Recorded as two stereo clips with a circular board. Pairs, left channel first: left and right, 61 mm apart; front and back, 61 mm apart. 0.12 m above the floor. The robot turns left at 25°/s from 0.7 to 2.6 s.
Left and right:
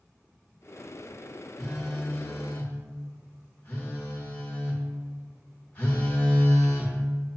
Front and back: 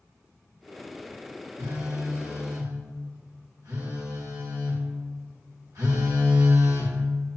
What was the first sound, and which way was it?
A phone buzzing, 175° left.